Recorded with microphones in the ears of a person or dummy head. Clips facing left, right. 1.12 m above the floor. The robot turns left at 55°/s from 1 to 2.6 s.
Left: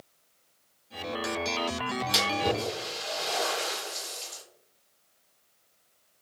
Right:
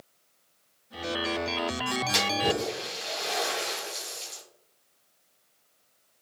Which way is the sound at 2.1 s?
5° left (ahead or behind).